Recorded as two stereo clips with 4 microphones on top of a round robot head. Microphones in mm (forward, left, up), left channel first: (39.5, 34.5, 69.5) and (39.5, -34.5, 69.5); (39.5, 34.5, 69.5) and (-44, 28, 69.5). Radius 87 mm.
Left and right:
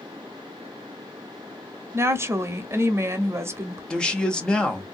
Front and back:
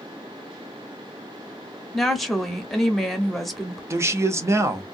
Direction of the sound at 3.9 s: 155° left.